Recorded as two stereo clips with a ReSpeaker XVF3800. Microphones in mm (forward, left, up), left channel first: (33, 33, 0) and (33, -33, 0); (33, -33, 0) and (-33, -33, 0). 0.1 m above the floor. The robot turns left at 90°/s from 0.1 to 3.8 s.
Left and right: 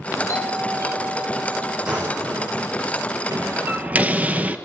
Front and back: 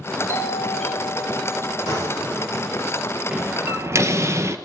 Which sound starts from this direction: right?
A door slam, at 3.3 s.